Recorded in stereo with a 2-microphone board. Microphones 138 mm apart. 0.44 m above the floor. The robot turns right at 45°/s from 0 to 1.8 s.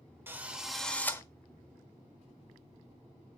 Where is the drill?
20° right, 1.1 m; by 1.2 s 25° left, 1.1 m.